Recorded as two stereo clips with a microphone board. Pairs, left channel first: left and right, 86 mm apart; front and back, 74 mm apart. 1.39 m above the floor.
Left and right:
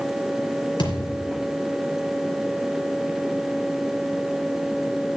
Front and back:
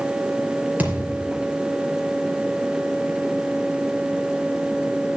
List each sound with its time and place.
0.8 s a thud: 110° left, 4 m